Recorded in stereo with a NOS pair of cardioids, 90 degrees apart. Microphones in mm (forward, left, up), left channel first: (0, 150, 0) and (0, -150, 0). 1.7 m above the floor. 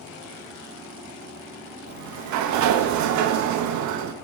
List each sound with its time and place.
1.9 s a sliding door: 70° right, 0.5 m